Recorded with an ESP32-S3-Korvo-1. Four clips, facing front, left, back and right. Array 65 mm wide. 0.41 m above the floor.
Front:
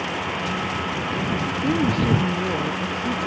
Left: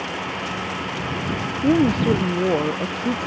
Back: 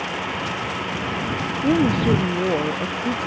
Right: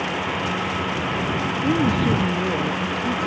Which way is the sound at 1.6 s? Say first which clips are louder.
Left 4 dB, back 4 dB; 120° left.